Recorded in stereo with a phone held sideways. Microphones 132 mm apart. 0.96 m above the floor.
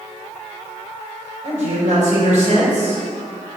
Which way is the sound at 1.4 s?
70° right (ahead or behind).